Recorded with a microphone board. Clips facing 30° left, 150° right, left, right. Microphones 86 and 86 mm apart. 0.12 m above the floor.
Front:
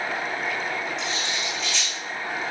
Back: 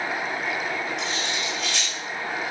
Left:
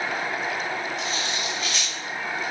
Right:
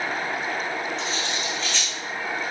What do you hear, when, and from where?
1.0 s cutlery clinking: 170° left, 5 m